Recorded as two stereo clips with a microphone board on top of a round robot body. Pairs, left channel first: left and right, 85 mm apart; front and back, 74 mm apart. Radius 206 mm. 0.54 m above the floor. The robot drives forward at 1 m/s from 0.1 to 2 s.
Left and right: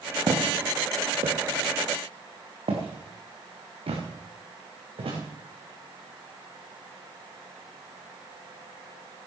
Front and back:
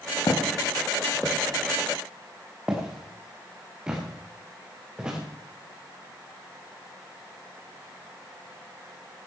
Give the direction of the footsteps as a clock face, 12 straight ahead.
1 o'clock.